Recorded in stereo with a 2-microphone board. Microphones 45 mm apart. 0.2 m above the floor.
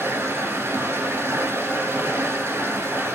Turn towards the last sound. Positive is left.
turn(degrees=-65)  # may be behind; listen again after turning